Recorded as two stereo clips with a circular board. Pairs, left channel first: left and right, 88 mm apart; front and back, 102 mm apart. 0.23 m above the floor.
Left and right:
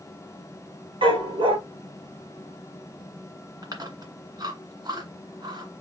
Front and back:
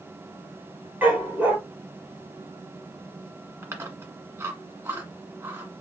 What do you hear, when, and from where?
1.0 s a dog barking: 105° right, 2.5 m
3.6 s chewing: 120° right, 1.7 m